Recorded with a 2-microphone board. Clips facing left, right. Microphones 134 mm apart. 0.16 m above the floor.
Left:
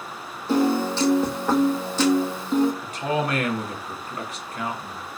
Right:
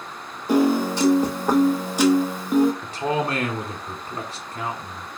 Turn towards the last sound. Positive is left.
turn(degrees=-30)  # may be behind; listen again after turning